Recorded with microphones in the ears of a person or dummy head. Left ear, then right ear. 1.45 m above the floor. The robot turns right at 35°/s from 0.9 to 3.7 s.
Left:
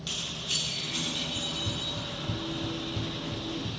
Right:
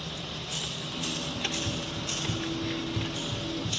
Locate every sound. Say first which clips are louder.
1.4 s running footsteps: right 1 dB; 5° right (ahead or behind), 1.6 m; by 3.8 s 30° right (ahead or behind), 2.0 m